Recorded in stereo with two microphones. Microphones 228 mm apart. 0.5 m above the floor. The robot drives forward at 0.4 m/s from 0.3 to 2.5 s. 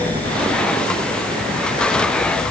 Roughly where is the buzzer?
I don't hear a buzzer.